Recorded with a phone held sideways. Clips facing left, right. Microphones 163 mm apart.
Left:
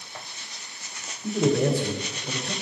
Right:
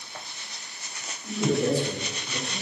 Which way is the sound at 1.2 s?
60° left (ahead or behind).